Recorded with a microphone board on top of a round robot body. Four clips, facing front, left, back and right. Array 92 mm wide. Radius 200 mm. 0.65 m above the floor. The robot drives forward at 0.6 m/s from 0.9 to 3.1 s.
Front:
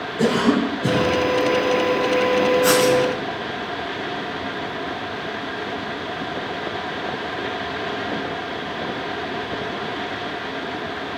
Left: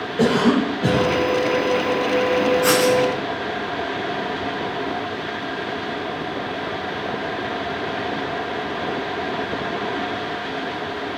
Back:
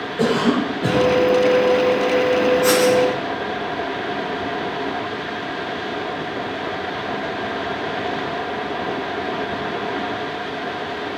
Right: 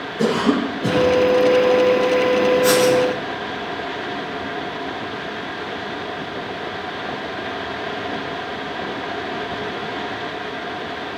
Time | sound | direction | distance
0.2 | a cough | 105° left | 7 m
2.6 | writing | 85° left | 8.5 m